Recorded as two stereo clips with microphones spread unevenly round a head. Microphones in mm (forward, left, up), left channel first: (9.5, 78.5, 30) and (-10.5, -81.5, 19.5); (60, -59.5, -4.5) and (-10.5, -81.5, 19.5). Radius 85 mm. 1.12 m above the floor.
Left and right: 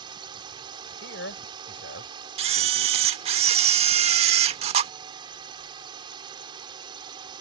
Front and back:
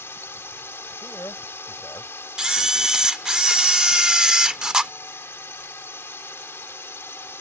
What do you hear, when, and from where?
0.0 s a drone: 35° right
1.0 s a man speaking: 85° left
2.4 s a camera shutter: 125° right